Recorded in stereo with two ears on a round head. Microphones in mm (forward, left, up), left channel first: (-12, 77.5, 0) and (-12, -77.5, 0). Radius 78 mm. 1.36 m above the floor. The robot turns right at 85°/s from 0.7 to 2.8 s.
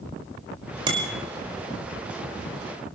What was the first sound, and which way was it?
A bicycle bell, 30° right (ahead or behind).